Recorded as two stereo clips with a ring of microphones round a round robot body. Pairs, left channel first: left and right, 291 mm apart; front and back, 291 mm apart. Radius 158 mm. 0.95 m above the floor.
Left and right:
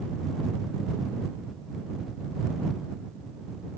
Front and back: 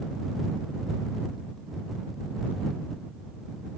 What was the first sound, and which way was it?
Only background noise.